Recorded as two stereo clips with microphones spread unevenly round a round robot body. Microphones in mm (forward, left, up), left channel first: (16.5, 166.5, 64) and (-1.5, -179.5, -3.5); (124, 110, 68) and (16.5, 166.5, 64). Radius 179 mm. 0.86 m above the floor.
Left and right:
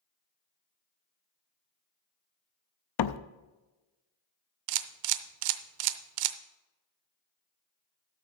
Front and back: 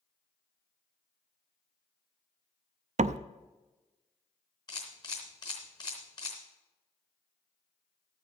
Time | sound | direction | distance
3.0 | a door slam | 120° left | 0.6 m
4.7 | a camera shutter | 90° right | 0.6 m